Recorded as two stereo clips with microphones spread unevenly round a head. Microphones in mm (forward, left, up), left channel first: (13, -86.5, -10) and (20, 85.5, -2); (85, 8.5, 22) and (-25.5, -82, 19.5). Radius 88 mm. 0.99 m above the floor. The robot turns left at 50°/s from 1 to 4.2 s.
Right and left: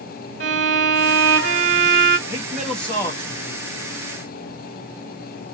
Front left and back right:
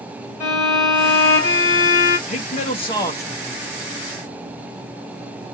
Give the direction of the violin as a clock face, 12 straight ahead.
8 o'clock.